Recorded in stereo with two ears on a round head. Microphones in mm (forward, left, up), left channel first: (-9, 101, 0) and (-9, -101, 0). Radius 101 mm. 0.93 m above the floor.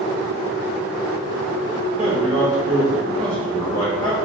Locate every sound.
2.0 s a man speaking: 30° right (ahead or behind), 1.4 m; by 4.2 s 25° left (ahead or behind), 1.6 m